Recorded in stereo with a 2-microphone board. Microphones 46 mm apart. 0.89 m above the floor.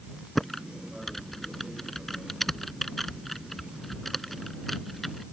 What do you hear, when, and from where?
0.3 s typing on a keyboard: 5° left (ahead or behind)